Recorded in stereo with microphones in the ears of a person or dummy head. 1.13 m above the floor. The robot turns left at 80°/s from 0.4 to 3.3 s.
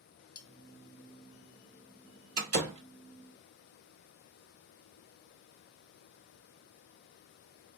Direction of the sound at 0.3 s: 50° left (ahead or behind).